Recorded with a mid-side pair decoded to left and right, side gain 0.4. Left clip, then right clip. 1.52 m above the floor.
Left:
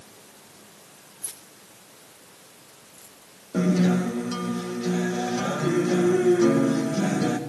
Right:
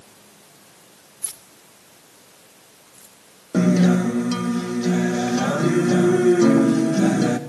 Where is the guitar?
50° right, 2 m.